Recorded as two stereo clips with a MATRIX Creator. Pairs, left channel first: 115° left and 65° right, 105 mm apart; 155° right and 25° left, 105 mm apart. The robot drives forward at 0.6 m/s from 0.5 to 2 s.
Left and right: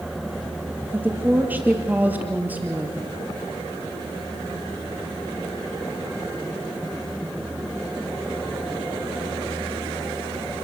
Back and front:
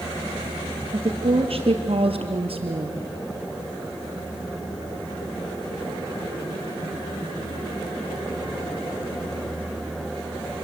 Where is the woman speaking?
5° left, 3 m.